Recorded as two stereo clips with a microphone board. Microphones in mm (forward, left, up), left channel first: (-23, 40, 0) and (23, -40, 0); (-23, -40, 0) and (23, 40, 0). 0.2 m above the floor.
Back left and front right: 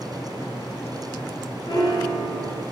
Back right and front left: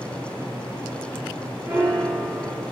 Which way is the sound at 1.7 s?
115° left.